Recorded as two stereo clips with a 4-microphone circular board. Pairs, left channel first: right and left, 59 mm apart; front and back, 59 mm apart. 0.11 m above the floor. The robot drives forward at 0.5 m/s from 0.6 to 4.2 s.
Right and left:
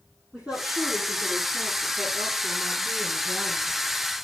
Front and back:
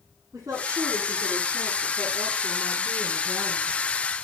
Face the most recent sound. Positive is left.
turn(degrees=170)